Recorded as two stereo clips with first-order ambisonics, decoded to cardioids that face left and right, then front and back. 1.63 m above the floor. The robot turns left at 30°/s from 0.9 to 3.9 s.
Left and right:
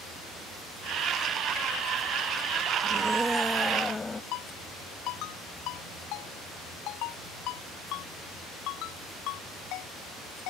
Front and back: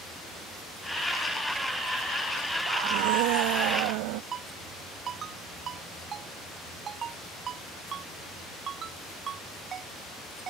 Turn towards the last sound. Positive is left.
turn(degrees=120)